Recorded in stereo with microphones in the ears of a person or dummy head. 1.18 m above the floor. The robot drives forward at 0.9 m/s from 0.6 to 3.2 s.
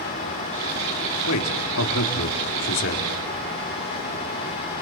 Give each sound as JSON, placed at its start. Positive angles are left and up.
{"t": 1.3, "sound": "a man speaking", "side_deg": 85, "distance_m": 2.5}